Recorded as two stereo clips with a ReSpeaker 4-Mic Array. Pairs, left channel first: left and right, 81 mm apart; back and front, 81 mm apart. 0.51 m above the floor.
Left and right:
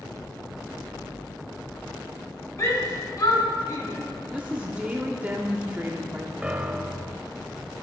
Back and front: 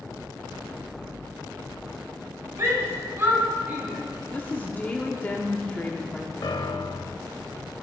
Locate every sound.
2.6 s a shout: 50° left, 3 m; by 3.9 s 65° left, 3.5 m
4.3 s a woman speaking: 140° right, 0.7 m
6.4 s a piano: 165° right, 0.6 m